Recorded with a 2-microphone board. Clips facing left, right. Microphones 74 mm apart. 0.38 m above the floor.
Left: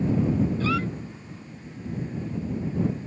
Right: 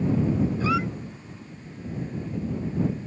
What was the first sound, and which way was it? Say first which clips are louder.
A squeak: right 1 dB; 15° right (ahead or behind).